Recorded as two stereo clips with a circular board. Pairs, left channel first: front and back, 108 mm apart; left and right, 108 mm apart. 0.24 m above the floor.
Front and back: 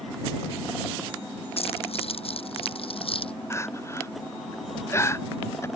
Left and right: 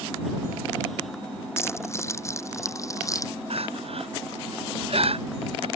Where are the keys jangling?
25° left; by 3.3 s 30° left.